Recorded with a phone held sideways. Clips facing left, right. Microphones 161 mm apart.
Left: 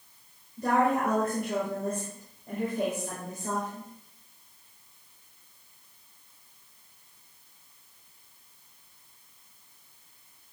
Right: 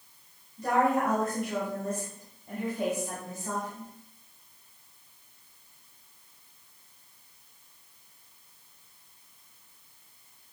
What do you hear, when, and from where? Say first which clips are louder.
0.6 s a woman speaking: even; 60° left (ahead or behind), 5 m